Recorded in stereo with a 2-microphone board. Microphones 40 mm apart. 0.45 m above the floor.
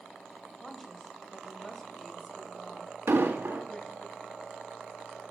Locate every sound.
0.6 s a woman speaking: 10° left (ahead or behind), 2.5 m
3.1 s an explosion: 75° right (ahead or behind), 2.5 m